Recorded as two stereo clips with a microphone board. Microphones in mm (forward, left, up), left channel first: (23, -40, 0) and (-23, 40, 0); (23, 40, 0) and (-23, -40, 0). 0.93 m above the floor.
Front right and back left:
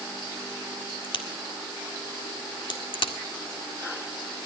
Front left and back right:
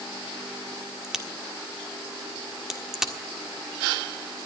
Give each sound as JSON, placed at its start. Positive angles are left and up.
{"t": 1.0, "sound": "a crack", "azimuth_deg": -35, "distance_m": 1.6}